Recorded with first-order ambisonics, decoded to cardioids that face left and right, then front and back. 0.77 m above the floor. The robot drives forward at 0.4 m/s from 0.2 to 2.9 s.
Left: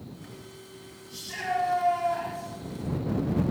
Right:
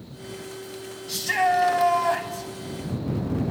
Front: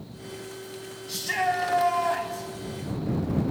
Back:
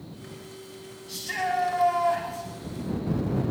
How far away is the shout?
About 5 m.